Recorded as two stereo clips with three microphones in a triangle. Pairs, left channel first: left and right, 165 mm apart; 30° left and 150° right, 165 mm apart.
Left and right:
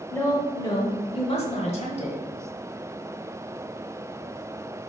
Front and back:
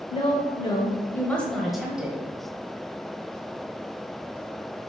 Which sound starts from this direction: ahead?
A woman speaking, at 0.1 s.